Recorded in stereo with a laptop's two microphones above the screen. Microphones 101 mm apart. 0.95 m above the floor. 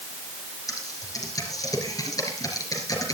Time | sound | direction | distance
0.7 | typing on a keyboard | 35° left (ahead or behind) | 4 m